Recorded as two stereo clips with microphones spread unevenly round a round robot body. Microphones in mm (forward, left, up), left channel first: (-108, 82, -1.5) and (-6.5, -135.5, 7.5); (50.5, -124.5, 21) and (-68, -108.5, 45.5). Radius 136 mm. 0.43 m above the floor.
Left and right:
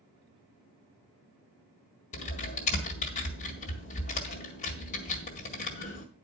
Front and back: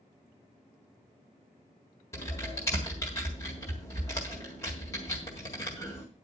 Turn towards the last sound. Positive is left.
turn(degrees=55)